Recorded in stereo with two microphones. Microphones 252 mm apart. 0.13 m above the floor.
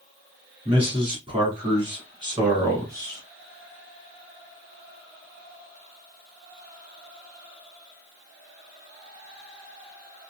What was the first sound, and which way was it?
A man speaking, 20° right (ahead or behind).